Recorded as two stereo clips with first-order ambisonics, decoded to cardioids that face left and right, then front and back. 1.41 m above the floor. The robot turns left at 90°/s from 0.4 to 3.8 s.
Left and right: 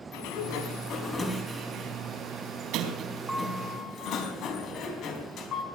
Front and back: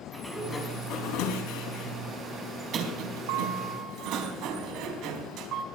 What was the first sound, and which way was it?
A sliding door, 85° left.